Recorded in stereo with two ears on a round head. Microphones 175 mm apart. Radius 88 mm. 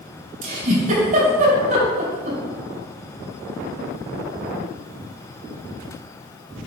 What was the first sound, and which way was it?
A giggle, 40° right (ahead or behind).